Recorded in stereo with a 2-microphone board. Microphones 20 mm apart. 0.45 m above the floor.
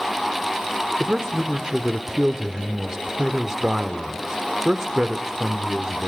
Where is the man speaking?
30° right (ahead or behind), 1.2 m.